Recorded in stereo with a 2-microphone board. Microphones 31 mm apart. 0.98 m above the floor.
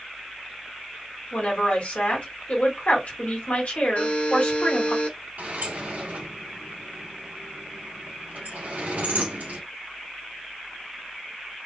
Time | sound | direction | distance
1.3 | a woman speaking | 50° left (ahead or behind) | 1.8 m
4.0 | a buzzer | 60° left (ahead or behind) | 1.5 m
5.4 | a sliding door | 85° right | 1.9 m